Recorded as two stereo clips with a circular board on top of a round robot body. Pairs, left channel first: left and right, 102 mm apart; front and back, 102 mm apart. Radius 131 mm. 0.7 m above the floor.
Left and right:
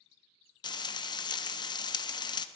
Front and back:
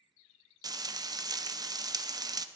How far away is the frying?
About 0.7 m.